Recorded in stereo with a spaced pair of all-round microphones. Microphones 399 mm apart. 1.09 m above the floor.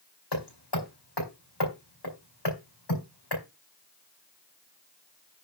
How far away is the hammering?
About 4.5 m.